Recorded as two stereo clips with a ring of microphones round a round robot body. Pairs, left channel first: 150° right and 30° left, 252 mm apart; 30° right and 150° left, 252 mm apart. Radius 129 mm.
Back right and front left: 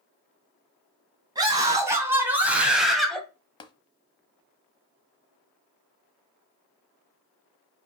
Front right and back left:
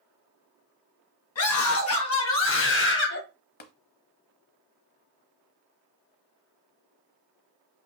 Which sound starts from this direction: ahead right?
A scream, at 1.4 s.